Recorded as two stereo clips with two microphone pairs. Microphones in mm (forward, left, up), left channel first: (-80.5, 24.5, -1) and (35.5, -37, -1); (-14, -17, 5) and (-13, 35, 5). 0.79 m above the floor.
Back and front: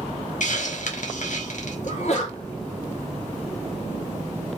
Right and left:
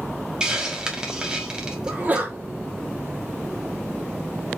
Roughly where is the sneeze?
Behind left.